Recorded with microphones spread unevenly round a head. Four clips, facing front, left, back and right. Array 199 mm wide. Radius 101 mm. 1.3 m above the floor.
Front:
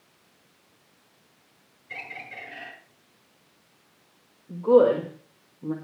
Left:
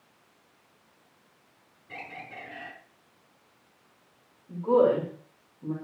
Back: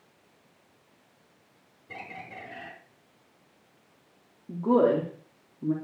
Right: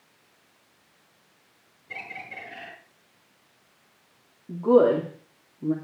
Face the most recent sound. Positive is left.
turn(degrees=-130)